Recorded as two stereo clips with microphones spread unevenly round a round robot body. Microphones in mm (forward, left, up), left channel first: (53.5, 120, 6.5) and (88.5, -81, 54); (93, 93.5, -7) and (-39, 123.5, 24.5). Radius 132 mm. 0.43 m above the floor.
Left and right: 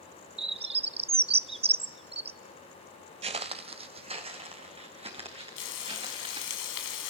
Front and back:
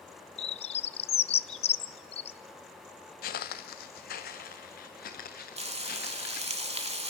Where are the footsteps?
30° right, 0.7 m; by 6.6 s 20° right, 4 m.